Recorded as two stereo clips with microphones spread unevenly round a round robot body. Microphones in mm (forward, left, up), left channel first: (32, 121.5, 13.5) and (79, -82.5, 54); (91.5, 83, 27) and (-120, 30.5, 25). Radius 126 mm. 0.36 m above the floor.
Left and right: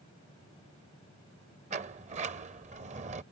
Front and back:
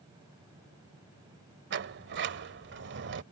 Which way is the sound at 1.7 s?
140° right.